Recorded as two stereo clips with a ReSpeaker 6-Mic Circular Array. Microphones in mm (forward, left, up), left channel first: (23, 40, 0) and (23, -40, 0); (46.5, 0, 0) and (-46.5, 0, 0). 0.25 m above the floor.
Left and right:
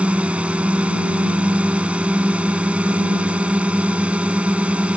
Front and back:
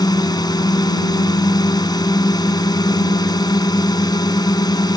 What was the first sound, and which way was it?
A drone, 20° right.